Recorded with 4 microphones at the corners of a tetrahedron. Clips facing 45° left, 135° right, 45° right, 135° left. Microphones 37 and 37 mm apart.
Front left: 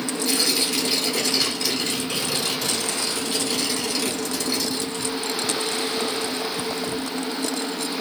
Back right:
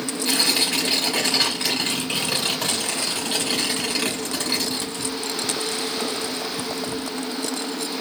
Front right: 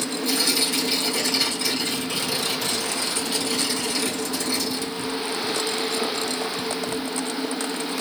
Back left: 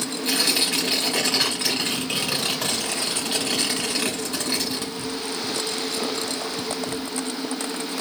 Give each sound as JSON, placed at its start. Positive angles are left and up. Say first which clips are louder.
{"t": 0.2, "sound": "tearing paper", "louder": "back right 2 dB, back left 1 dB", "azimuth_deg": 180, "distance_m": 3.0}